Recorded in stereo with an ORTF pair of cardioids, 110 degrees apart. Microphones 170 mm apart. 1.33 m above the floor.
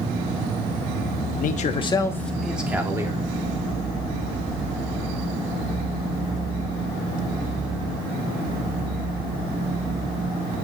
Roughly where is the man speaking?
Ahead left.